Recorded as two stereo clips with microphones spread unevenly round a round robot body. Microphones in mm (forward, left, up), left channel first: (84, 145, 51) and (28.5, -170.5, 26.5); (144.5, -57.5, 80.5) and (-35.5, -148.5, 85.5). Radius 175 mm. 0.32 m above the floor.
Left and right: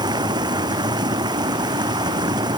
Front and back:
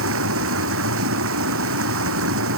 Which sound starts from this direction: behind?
Running water, at 0.0 s.